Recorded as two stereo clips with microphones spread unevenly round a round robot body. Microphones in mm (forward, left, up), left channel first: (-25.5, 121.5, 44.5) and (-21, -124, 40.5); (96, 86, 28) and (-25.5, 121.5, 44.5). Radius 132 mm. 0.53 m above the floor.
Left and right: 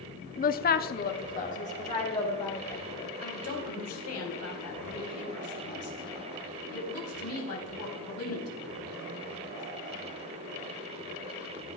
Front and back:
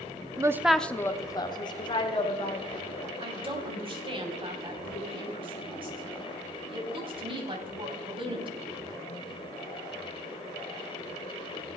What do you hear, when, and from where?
0.4 s a woman speaking: 115° left, 0.7 m; by 3.1 s 25° left, 3 m
3.2 s a woman speaking: 115° left, 3.5 m